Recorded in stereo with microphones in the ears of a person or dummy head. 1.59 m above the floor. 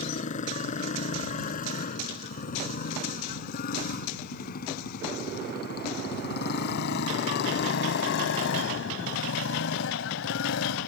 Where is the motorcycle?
40° left (ahead or behind); by 10.9 s 75° left (ahead or behind).